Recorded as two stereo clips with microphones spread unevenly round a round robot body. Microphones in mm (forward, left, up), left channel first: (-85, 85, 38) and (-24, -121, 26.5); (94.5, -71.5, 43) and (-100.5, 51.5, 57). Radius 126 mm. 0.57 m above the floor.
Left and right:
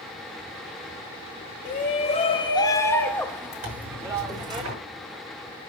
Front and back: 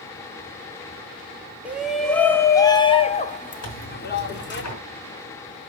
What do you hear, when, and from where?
1.6 s a shout: 60° left, 1.5 m; by 4.6 s 10° right, 1.9 m
3.6 s tearing paper: 40° right, 5 m